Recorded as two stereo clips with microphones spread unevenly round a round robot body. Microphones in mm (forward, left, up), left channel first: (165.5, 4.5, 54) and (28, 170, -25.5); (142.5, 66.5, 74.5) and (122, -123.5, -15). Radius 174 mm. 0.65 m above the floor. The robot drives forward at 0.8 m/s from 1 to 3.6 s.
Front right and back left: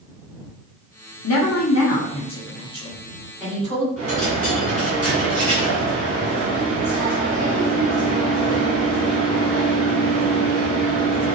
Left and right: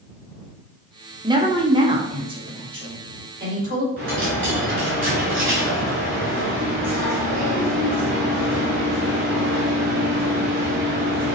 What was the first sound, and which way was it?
A woman speaking, 60° right.